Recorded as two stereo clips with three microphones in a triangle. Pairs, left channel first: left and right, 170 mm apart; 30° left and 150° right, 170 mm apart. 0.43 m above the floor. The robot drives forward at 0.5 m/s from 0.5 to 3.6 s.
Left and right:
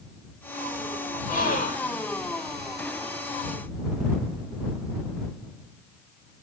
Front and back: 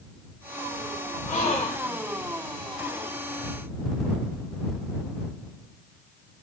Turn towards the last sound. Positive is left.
turn(degrees=130)